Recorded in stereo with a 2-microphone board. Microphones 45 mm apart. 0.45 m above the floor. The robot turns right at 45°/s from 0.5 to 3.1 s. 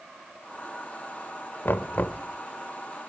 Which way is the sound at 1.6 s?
50° left (ahead or behind).